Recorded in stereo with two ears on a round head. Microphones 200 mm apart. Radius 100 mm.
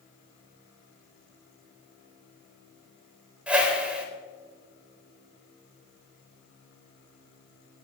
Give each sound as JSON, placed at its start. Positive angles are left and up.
{"t": 3.5, "sound": "a whoosh", "side_deg": -5, "distance_m": 4.0}